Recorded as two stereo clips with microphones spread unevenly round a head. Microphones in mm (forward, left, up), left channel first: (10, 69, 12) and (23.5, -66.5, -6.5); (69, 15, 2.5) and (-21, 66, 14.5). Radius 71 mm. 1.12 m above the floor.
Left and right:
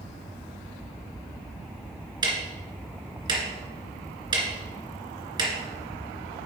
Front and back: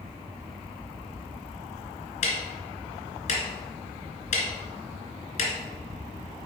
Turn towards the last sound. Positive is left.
turn(degrees=-25)